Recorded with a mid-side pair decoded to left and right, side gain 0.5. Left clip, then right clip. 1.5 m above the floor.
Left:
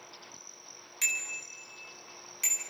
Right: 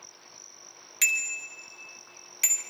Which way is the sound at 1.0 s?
50° right.